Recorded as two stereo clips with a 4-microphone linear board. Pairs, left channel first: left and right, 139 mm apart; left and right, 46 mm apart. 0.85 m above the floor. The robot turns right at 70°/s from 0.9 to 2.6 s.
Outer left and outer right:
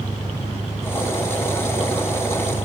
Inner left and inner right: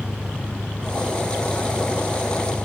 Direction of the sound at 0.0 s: 130° left.